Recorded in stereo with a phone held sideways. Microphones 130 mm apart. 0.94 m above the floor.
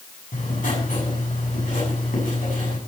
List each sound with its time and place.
0.3 s writing: 85° left, 6.5 m